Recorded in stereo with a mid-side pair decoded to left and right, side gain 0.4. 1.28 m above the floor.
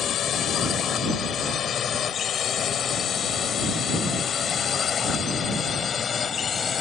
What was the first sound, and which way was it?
A drone, 70° left.